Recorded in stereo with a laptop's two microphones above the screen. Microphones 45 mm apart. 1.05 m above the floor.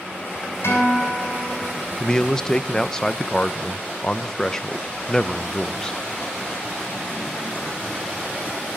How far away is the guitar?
About 6 m.